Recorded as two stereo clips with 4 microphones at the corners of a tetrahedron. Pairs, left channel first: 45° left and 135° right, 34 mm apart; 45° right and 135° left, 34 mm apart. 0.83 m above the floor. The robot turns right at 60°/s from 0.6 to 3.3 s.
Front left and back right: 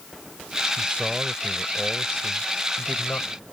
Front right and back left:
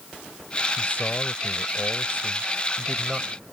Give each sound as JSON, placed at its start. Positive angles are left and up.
{"t": 0.8, "sound": "a man speaking", "azimuth_deg": -90}